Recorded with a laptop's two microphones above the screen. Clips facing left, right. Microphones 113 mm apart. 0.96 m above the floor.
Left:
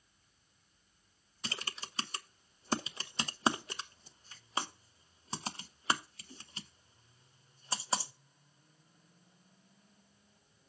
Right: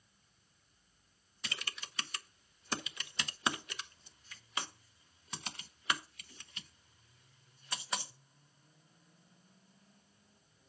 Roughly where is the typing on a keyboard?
Left.